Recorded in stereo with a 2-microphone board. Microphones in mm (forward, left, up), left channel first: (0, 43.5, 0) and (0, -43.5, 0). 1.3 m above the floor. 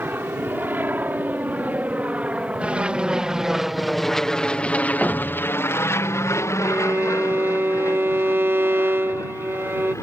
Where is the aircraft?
25° right (ahead or behind); by 10.0 s 35° left (ahead or behind).